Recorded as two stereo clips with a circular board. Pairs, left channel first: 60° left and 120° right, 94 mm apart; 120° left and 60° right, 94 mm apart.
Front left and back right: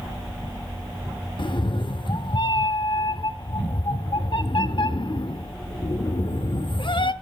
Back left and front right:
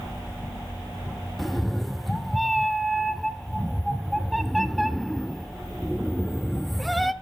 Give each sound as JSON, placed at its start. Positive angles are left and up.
{"t": 1.4, "sound": "a cat meowing", "azimuth_deg": 30, "distance_m": 0.6}